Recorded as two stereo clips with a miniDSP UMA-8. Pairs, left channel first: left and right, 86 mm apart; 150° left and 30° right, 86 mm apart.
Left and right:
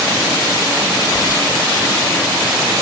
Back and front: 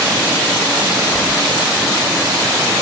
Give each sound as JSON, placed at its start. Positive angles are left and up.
{"t": 1.1, "sound": "keys jangling", "azimuth_deg": -35, "distance_m": 2.0}